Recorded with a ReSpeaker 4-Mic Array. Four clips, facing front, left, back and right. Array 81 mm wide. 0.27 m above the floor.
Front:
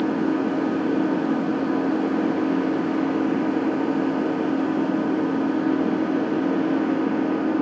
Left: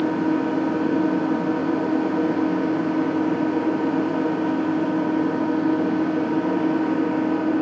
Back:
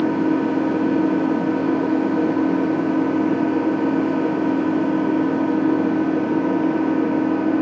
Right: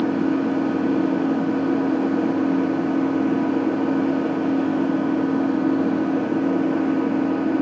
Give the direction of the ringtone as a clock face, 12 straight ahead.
No ringtone in this recording.